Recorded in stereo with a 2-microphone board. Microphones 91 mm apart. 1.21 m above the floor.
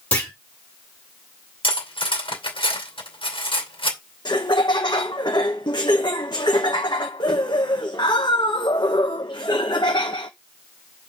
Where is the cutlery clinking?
75° left (ahead or behind), 2.5 m.